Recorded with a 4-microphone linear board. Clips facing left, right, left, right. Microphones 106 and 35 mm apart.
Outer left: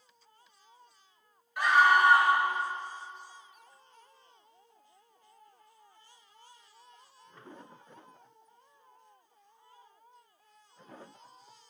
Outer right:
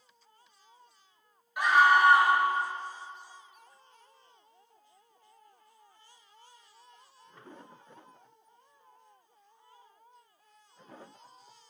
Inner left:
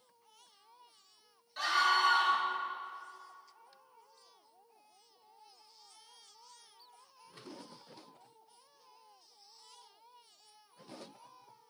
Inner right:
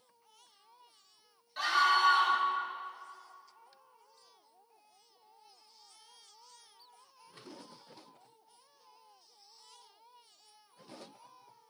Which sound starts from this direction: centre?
A scream, at 1.6 s.